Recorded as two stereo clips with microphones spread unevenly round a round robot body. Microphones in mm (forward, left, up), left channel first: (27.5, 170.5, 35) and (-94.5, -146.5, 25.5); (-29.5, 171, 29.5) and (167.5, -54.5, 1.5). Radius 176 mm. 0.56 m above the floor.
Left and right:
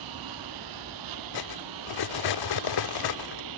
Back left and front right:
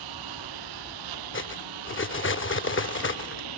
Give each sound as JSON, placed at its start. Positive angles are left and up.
{"t": 0.0, "sound": "a lawn mower", "azimuth_deg": -80}
{"t": 1.3, "sound": "cutlery clinking", "azimuth_deg": 80}